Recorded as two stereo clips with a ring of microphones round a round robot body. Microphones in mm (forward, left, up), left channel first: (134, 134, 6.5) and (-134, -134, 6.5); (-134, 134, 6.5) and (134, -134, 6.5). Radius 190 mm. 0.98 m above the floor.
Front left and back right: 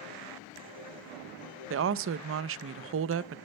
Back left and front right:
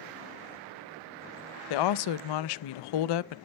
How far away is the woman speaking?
About 0.6 m.